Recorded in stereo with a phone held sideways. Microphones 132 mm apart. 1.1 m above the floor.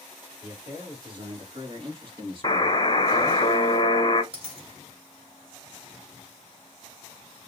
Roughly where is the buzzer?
Left.